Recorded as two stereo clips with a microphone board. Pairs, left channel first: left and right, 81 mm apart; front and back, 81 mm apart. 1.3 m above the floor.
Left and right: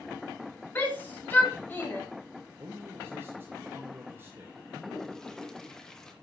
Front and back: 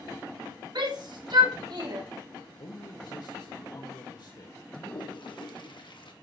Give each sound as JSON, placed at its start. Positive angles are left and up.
{"t": 0.8, "sound": "a shout", "azimuth_deg": 155, "distance_m": 4.5}
{"t": 2.6, "sound": "a man speaking", "azimuth_deg": -30, "distance_m": 1.7}
{"t": 4.7, "sound": "a toilet flushing", "azimuth_deg": 5, "distance_m": 1.6}